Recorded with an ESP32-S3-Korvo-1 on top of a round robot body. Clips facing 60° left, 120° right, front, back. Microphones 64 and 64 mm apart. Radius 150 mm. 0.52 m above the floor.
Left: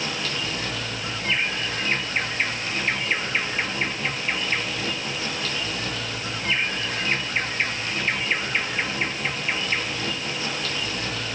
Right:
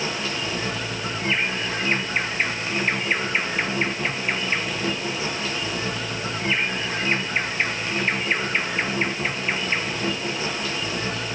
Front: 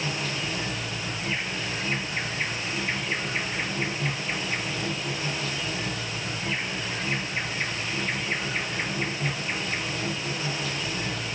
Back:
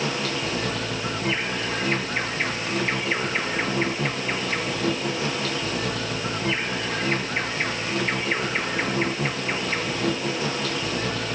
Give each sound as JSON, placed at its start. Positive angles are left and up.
{"t": 0.0, "sound": "an insect", "azimuth_deg": 170, "distance_m": 0.9}